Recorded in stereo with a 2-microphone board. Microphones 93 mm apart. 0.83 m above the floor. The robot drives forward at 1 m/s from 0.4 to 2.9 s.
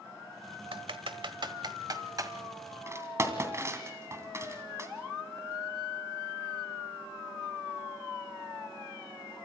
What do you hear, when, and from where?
0.7 s typing on a keyboard: 80° right, 1.4 m; by 4.9 s 30° right (ahead or behind), 2.5 m